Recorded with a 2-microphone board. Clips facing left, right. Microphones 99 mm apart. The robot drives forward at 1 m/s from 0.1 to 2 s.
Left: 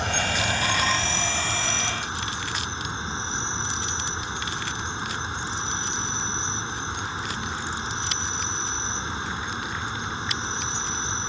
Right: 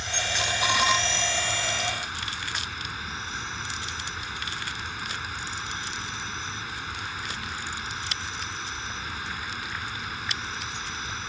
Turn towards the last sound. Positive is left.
turn(degrees=25)  # may be behind; listen again after turning